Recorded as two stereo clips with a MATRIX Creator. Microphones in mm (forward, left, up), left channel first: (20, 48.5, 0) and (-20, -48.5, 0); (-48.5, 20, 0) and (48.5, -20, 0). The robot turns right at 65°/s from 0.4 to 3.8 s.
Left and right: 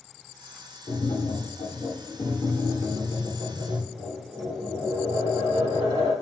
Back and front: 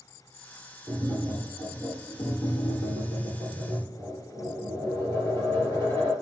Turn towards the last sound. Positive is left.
turn(degrees=-140)